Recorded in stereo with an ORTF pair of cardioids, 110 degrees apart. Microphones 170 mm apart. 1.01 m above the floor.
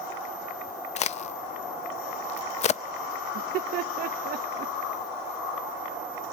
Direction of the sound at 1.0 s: 45° left.